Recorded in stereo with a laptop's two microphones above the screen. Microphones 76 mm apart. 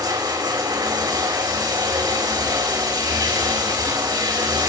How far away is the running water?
About 3.5 m.